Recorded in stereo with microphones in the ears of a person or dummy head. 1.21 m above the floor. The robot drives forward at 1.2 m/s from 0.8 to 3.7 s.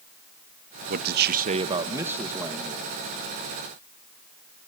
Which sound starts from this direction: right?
A man speaking, at 0.9 s.